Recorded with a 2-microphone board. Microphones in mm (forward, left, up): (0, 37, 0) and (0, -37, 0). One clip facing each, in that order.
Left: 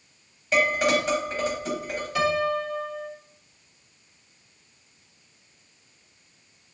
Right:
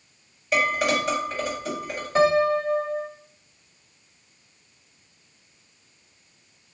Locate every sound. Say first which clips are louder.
0.5 s dishes clattering: left 1 dB; 5° right (ahead or behind), 3 m
2.1 s a piano: right 5 dB; 35° right (ahead or behind), 0.5 m